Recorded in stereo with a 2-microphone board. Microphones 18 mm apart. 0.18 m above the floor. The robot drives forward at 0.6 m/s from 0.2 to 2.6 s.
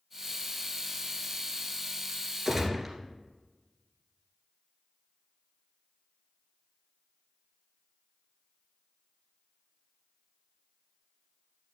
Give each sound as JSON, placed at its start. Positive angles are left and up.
{"t": 2.5, "sound": "a gunshot", "side_deg": -10, "distance_m": 2.0}